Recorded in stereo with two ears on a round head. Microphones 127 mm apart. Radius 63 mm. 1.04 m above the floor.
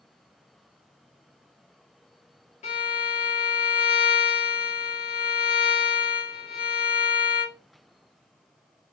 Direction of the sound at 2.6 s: 50° left (ahead or behind).